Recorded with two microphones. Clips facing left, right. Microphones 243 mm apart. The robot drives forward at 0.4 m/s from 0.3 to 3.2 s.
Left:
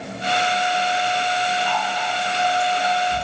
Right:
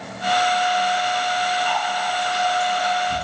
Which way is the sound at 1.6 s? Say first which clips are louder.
Even; 60° right (ahead or behind).